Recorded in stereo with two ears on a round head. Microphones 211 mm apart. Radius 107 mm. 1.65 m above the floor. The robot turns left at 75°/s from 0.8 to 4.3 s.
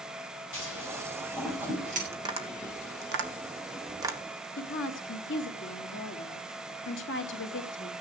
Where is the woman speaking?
50° left (ahead or behind), 2.5 m.